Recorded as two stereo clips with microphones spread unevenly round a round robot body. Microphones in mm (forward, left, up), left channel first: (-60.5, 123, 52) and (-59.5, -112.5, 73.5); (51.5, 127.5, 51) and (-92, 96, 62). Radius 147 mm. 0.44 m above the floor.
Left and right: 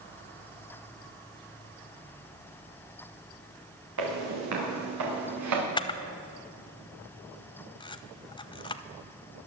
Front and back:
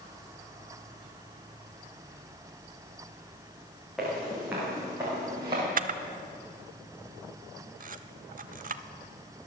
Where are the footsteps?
80° right, 5 m; by 5.6 s 95° right, 4.5 m.